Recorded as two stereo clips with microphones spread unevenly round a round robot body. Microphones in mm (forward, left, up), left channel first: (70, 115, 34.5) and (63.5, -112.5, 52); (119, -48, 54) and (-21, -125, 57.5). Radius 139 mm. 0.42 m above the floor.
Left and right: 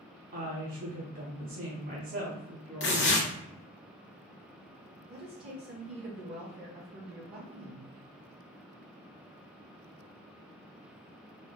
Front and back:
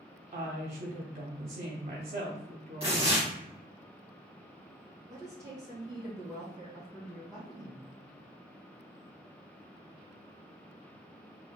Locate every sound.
0.3 s a woman speaking: 130° right, 1.0 m
2.8 s tearing paper: 130° left, 1.8 m
5.1 s a woman speaking: 90° right, 2.0 m